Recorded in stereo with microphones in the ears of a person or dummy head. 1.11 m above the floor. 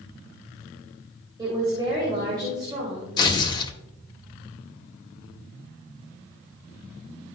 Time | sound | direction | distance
1.4 | a woman speaking | 25° right (ahead or behind) | 2.5 m
3.2 | tearing paper | 25° left (ahead or behind) | 1.3 m